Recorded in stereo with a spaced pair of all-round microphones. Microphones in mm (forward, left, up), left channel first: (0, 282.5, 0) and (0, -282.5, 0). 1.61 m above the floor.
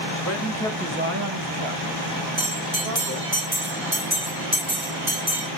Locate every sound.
0.2 s a man speaking: 30° left (ahead or behind), 1.6 m; by 3.4 s 80° right, 4 m
2.4 s a bell: 40° right (ahead or behind), 3.5 m